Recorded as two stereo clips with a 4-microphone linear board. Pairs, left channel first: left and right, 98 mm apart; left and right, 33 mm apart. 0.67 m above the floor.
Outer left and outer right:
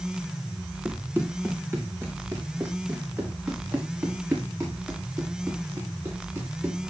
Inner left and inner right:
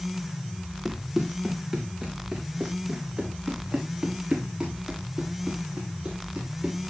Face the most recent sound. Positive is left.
turn(degrees=-25)  # may be behind; listen again after turning